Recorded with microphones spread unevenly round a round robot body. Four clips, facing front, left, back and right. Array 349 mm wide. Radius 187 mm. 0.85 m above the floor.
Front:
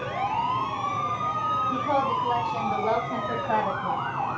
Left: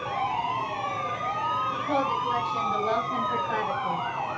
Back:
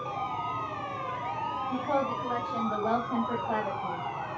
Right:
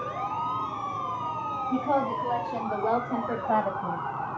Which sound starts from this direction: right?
A woman speaking, at 1.7 s.